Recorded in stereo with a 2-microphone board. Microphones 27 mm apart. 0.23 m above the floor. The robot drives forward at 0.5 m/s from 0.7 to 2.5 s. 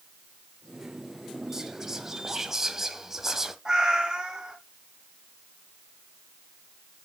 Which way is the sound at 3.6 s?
20° right (ahead or behind).